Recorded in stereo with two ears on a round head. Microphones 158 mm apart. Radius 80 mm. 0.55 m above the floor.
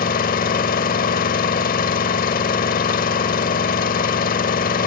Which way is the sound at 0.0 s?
55° left (ahead or behind).